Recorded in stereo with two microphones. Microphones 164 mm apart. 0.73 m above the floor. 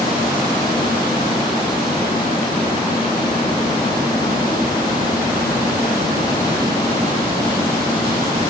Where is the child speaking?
I don't hear a child speaking.